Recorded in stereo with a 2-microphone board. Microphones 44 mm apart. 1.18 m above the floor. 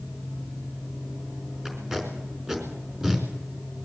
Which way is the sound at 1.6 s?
15° right (ahead or behind).